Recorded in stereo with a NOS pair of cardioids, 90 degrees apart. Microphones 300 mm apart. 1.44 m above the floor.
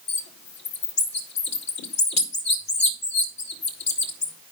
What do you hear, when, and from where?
0.1 s a bird: 65° left, 2 m